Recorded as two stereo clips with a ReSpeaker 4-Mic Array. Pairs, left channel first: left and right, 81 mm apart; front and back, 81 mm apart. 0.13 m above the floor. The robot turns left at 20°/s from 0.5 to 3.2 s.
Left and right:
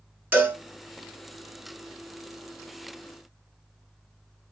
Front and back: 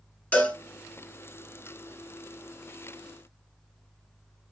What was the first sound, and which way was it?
A cowbell, 50° right.